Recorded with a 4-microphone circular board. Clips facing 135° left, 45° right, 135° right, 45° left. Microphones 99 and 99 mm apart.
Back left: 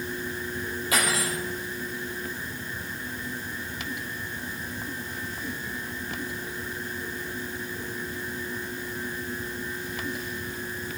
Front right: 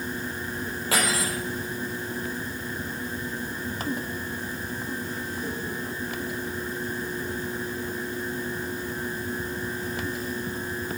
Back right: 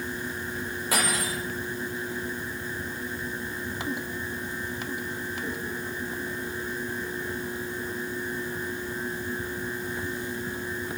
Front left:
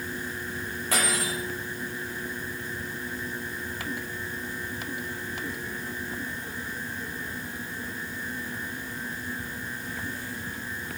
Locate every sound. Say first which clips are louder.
0.9 s cutlery clinking: front right 1 dB, even; 50° right, 8 m